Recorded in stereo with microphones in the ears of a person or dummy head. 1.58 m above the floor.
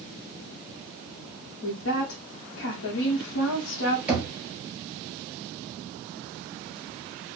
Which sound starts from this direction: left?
A woman speaking, at 1.6 s.